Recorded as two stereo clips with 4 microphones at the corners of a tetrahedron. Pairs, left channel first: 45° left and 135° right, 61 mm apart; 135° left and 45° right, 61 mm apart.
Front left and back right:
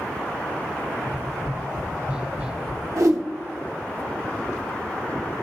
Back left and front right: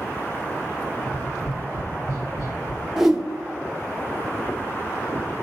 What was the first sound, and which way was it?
Tapping, 160° left.